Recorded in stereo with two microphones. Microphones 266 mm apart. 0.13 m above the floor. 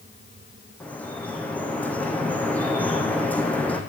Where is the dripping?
5° left (ahead or behind), 2.5 m.